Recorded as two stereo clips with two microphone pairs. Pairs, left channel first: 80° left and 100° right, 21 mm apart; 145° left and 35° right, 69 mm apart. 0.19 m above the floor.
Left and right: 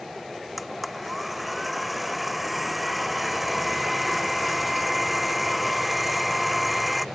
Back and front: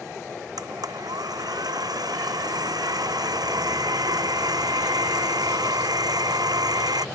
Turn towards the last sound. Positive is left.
turn(degrees=-10)